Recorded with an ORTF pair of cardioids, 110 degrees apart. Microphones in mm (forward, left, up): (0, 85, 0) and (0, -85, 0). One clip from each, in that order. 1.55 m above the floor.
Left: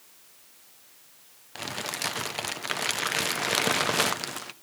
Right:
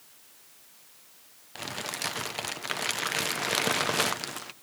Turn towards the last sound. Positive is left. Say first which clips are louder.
# left 2 dB
turn(degrees=10)